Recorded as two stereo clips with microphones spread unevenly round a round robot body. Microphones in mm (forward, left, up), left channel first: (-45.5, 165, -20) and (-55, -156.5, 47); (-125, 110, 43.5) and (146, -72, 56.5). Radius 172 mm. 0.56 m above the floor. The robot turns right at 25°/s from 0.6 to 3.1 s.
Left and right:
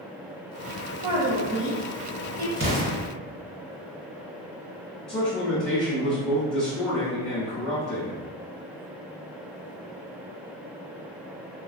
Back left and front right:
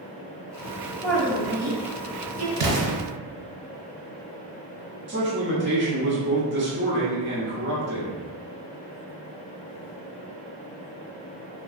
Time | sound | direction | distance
1.0 | a woman speaking | 130° right | 1.7 m
2.6 | an explosion | 20° right | 1.3 m
5.1 | a man speaking | 10° left | 1.5 m